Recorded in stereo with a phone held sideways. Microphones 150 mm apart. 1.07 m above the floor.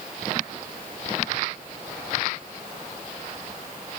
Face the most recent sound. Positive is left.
No sound to turn to.